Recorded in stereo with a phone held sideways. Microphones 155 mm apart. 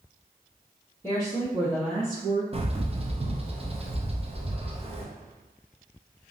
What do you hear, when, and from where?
1.0 s a woman speaking: 15° left (ahead or behind), 1.3 m; by 2.4 s 40° right (ahead or behind), 1.1 m
2.5 s a bird: 40° right (ahead or behind), 0.6 m